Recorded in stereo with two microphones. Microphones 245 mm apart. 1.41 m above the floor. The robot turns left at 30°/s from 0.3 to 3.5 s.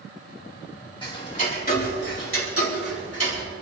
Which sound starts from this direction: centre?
Ticking, at 1.0 s.